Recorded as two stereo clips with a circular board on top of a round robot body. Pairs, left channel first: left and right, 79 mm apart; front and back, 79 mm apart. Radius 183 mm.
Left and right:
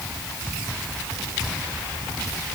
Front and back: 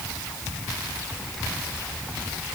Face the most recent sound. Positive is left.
No sound to turn to.